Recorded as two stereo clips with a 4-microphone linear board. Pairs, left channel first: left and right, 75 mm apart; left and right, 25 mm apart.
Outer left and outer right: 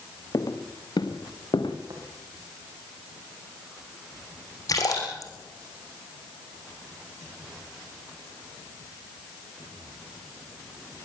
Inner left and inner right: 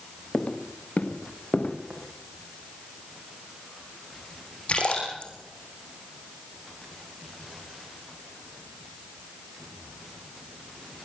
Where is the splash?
50° left (ahead or behind), 6 m.